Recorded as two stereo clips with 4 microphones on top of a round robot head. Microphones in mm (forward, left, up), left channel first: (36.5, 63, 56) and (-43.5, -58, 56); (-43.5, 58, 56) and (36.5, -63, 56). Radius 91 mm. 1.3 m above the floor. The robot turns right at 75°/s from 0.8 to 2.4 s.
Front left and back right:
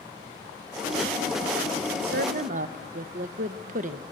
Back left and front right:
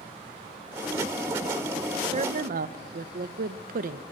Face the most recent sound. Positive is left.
turn(degrees=-85)